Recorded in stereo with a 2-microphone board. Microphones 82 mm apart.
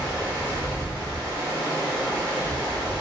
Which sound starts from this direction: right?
Running water, at 0.0 s.